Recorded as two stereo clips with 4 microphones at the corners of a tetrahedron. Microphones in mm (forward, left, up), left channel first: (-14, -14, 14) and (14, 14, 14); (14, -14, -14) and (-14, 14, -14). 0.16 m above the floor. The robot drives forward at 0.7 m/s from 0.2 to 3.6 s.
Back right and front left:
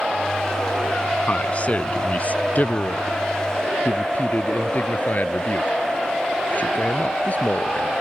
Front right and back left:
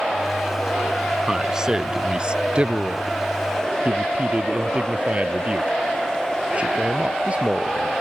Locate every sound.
1.3 s a man speaking: 155° right; by 7.9 s 170° right